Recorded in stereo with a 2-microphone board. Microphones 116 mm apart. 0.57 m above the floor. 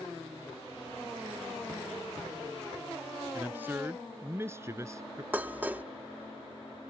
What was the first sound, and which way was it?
A man speaking, 15° right (ahead or behind).